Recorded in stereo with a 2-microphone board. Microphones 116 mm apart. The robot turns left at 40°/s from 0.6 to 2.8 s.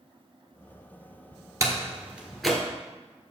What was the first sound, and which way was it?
A door slam, 30° right (ahead or behind).